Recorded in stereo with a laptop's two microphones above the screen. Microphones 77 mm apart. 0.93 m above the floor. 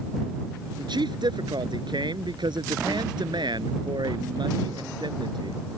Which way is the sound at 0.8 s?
75° right (ahead or behind).